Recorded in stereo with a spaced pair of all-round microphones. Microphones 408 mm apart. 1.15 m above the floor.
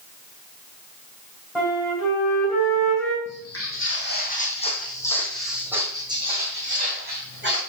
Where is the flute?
Centre (ahead or behind), 3.5 m.